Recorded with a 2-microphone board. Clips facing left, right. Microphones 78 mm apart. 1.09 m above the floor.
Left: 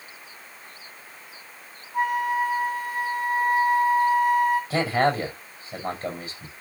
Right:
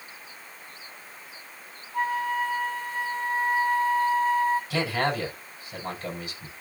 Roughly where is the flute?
Centre.